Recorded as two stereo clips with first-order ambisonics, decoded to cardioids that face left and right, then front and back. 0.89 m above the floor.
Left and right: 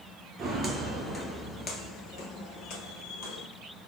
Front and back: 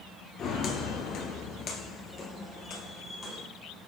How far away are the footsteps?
About 1.1 m.